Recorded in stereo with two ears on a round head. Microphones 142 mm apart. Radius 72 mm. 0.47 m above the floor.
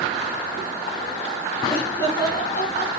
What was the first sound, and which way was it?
Laughter, 20° left (ahead or behind).